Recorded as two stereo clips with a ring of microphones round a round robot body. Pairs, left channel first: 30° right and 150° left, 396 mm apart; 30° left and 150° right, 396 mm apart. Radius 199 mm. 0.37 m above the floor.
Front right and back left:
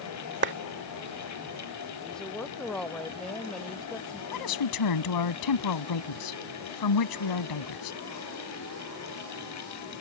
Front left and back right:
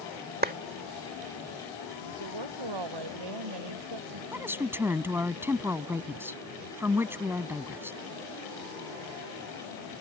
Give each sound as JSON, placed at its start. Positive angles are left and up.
{"t": 0.4, "sound": "a clap", "azimuth_deg": 170}
{"t": 2.0, "sound": "a woman speaking", "azimuth_deg": -120}
{"t": 4.3, "sound": "a woman speaking", "azimuth_deg": -65}